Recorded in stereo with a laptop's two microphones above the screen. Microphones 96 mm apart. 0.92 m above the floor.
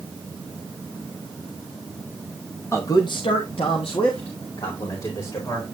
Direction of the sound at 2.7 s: 25° left (ahead or behind).